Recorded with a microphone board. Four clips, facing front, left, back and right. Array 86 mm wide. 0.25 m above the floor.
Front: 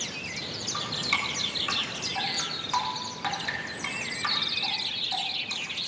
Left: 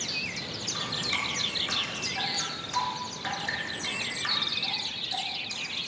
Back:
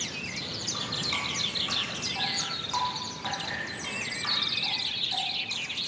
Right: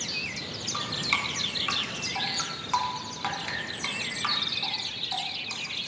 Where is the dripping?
65° right, 2.5 m.